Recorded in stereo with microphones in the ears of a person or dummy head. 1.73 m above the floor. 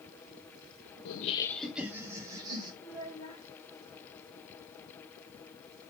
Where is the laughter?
60° left (ahead or behind), 0.7 m; by 2.7 s 30° right (ahead or behind), 2.5 m.